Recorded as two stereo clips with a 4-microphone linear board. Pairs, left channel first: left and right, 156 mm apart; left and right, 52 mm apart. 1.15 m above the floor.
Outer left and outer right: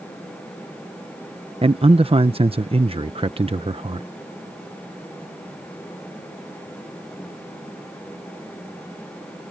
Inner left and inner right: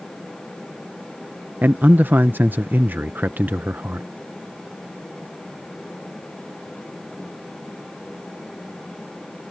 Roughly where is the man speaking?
Right.